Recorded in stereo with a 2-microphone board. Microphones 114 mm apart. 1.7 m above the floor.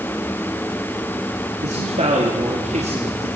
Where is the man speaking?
85° right, 3.5 m; by 3.3 s 75° right (ahead or behind), 4 m.